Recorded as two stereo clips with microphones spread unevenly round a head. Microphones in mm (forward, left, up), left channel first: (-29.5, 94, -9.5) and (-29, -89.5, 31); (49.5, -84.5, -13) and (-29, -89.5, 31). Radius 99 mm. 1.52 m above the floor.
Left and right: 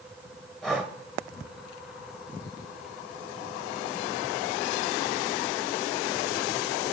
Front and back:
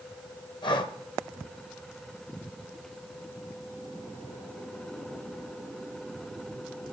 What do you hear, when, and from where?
0.6 s breathing: 5° left, 1.1 m